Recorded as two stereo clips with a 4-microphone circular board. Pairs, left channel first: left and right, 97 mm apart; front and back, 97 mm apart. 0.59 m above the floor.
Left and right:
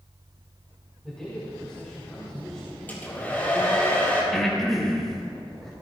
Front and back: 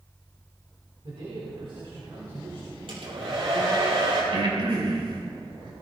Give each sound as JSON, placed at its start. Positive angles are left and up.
{"t": 1.0, "sound": "a man speaking", "azimuth_deg": 170, "distance_m": 4.5}
{"t": 2.9, "sound": "a hair dryer", "azimuth_deg": 160, "distance_m": 4.5}
{"t": 4.3, "sound": "breathing", "azimuth_deg": 175, "distance_m": 3.0}